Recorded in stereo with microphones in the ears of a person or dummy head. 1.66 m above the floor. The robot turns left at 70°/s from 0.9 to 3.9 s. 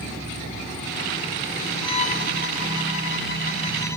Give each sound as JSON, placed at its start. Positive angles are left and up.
{"t": 1.8, "sound": "a violin", "azimuth_deg": 160}